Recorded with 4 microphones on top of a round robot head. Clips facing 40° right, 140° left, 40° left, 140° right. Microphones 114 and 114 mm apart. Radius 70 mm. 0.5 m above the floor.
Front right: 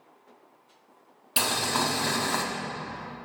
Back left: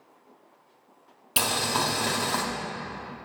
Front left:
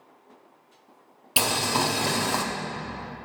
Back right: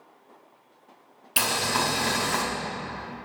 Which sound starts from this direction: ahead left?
Boiling, at 1.4 s.